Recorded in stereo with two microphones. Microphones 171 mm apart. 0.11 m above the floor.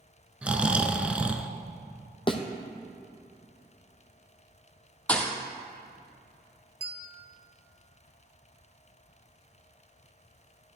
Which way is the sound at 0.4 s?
10° right (ahead or behind).